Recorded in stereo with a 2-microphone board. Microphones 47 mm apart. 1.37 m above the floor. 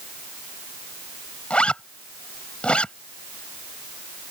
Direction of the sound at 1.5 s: 20° left (ahead or behind).